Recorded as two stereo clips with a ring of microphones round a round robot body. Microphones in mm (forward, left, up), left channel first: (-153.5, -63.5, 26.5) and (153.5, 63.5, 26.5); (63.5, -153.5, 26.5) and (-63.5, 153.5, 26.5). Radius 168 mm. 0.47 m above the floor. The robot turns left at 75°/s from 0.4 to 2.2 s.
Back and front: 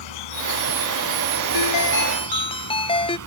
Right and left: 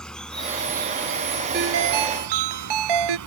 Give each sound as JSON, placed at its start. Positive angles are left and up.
{"t": 0.0, "sound": "an insect", "azimuth_deg": -155}
{"t": 1.5, "sound": "a ringtone", "azimuth_deg": 175}